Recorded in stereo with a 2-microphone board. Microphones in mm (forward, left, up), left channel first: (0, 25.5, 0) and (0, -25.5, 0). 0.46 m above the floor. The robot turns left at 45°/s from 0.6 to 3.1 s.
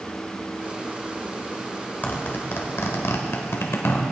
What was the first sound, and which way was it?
A zipper, 35° left (ahead or behind).